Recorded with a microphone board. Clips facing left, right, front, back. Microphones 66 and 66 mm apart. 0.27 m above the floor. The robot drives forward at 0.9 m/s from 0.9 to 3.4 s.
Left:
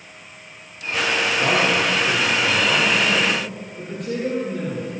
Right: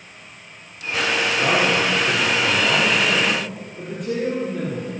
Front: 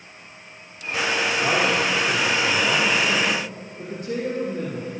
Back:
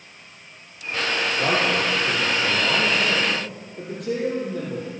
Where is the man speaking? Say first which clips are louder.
Even, even; 175° right, 7.5 m.